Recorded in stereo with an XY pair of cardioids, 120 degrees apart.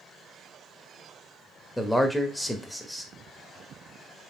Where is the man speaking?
10° left, 0.9 m.